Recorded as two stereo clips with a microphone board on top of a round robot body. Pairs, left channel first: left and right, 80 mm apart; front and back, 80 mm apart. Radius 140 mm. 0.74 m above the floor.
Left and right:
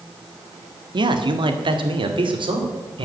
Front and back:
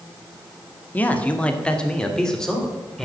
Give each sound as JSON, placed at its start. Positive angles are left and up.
{"t": 0.9, "sound": "a man speaking", "azimuth_deg": -70, "distance_m": 1.6}